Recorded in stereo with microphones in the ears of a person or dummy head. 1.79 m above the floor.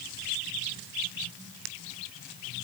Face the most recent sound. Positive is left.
No sound to turn to.